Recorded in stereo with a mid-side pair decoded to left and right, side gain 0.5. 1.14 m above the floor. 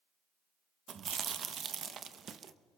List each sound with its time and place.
0.9 s chewing: 50° right, 0.8 m